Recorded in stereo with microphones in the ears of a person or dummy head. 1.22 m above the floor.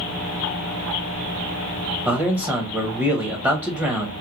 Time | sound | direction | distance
2.0 | a man speaking | 15° right (ahead or behind) | 0.6 m